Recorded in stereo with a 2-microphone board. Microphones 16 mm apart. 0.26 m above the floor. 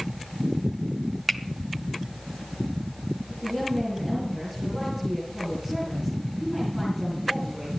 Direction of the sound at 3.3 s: 20° right (ahead or behind).